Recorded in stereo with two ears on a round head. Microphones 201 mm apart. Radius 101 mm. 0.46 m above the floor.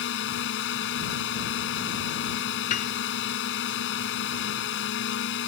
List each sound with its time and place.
0.0 s a drone: 55° left (ahead or behind)
2.7 s a piano: 35° left (ahead or behind)